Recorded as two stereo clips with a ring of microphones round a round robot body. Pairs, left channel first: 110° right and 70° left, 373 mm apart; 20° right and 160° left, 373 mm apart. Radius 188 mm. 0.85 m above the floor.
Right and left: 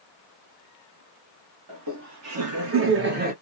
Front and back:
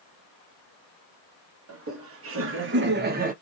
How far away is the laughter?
About 1.5 m.